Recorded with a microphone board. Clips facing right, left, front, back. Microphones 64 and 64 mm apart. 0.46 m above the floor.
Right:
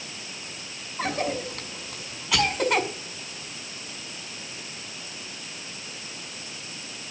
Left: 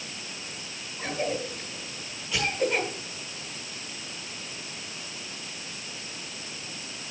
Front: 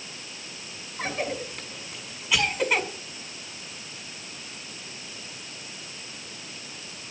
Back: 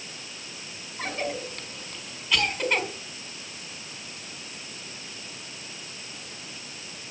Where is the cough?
80° right, 5 m.